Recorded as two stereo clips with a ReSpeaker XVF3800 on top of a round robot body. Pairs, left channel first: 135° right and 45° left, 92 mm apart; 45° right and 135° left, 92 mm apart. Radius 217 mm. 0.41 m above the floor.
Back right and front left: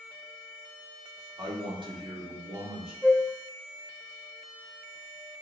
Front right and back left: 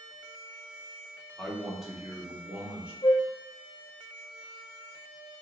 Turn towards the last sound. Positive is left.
turn(degrees=-40)